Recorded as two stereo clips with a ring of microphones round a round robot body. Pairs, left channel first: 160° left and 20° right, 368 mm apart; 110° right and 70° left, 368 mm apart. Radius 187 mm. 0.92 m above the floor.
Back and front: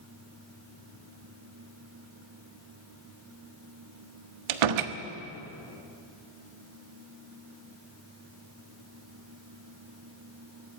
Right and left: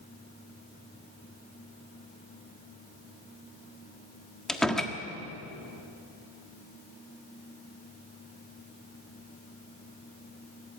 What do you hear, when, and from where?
4.5 s a door slam: 25° right, 1.4 m